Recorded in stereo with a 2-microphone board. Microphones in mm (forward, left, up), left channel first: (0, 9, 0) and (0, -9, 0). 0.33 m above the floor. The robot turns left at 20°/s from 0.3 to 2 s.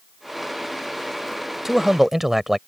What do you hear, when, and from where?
1.6 s a man speaking: 15° right (ahead or behind)